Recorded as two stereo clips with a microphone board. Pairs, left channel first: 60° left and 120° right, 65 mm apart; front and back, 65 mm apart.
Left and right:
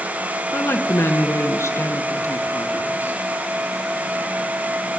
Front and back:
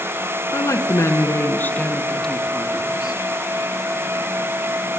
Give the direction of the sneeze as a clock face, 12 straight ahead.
No sneeze in this recording.